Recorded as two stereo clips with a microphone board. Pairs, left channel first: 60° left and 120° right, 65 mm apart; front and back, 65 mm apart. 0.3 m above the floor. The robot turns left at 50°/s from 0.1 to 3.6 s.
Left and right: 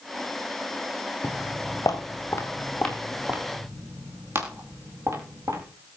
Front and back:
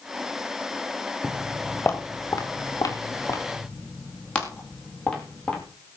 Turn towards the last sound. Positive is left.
turn(degrees=-80)